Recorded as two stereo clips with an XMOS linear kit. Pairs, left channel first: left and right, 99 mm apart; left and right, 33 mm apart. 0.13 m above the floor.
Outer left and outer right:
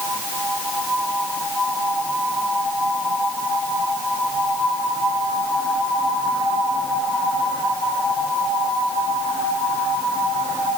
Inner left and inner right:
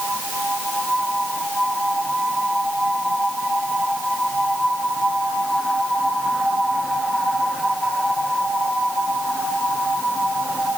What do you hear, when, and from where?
Only background noise.